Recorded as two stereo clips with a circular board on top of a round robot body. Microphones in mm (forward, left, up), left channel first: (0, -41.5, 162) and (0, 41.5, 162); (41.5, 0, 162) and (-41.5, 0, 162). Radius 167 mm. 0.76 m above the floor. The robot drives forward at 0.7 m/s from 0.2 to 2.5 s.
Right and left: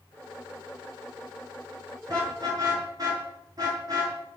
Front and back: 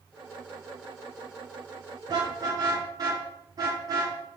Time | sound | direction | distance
2.1 | a car horn | 135° left | 6.5 m